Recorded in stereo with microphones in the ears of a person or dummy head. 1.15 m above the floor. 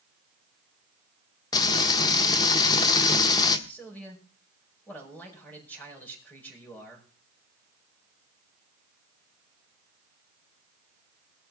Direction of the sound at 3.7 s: 10° left (ahead or behind).